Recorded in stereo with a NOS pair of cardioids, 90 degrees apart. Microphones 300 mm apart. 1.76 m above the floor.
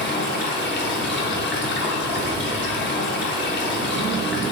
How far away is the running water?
About 0.9 m.